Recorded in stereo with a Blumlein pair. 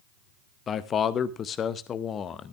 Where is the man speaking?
25° left, 0.7 m.